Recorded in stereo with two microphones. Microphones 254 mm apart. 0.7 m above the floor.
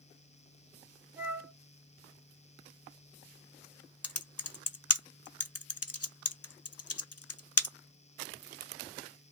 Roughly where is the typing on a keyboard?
Left.